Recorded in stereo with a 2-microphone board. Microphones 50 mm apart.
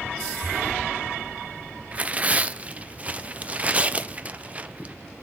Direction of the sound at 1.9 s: 30° right (ahead or behind).